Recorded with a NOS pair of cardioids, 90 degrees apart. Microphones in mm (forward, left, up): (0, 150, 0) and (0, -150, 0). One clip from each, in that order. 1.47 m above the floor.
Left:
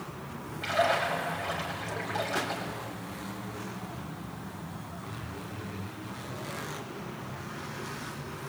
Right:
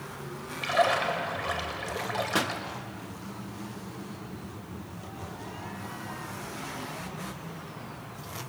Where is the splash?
45° right, 7 m.